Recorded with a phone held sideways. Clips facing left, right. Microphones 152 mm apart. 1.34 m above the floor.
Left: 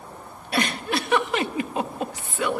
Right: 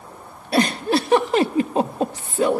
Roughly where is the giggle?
Right.